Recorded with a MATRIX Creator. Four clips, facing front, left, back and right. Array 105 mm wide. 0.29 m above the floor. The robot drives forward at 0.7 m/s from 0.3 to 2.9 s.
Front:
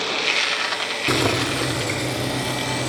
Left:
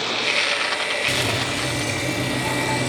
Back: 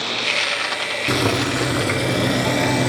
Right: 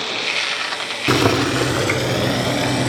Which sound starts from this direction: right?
Boiling, at 1.1 s.